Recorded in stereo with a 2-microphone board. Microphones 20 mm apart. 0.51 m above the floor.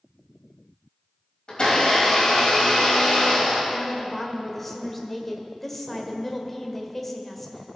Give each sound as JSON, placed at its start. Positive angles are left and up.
{"t": 1.5, "sound": "a blender", "side_deg": 40, "distance_m": 3.5}
{"t": 3.7, "sound": "a woman speaking", "side_deg": 10, "distance_m": 1.4}